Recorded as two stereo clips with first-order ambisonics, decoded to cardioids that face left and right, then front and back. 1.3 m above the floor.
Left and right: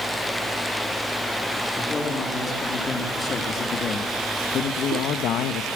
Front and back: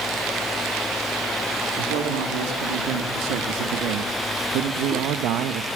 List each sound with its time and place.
1.8 s a man speaking: 165° left, 3 m; by 5.7 s 130° left, 1.0 m